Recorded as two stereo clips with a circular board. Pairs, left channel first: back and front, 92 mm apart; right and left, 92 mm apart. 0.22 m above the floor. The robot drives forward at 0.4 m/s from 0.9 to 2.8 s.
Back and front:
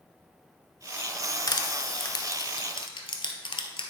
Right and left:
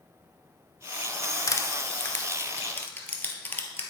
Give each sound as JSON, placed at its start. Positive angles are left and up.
{"t": 1.5, "sound": "crushing", "azimuth_deg": -140, "distance_m": 0.6}